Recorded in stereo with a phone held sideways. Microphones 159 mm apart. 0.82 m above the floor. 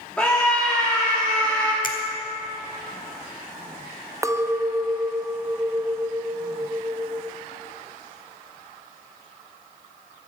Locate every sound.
0.2 s a scream: 5° left (ahead or behind), 1.5 m
1.8 s a finger snap: 60° left (ahead or behind), 1.3 m
4.2 s a clink: 20° right (ahead or behind), 0.5 m